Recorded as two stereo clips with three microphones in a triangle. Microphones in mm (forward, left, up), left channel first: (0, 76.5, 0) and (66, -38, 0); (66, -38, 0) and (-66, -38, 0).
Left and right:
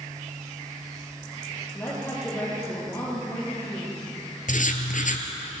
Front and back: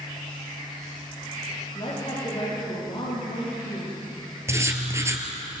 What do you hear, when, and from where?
1.7 s a woman speaking: 45° left, 9.5 m
4.5 s writing: 110° left, 2 m